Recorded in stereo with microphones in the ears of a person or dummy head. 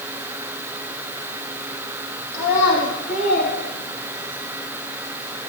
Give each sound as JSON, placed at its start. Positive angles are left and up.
{"t": 2.3, "sound": "a child speaking", "side_deg": 65, "distance_m": 1.6}